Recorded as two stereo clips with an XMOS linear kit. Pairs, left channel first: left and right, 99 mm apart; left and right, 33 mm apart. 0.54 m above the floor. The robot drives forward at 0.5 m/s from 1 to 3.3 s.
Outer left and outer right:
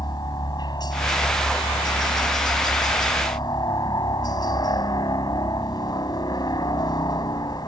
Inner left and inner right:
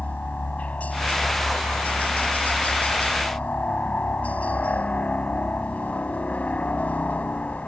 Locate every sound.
0.0 s a helicopter: 45° left (ahead or behind); by 7.7 s 40° left (ahead or behind)